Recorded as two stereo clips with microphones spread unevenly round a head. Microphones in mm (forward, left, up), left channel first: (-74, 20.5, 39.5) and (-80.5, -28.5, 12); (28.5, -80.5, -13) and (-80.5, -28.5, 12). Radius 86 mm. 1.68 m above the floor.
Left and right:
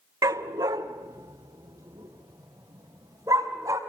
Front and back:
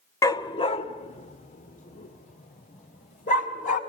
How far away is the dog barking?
About 1.2 m.